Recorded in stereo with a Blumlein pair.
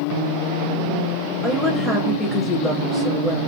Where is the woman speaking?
10° left, 0.7 m.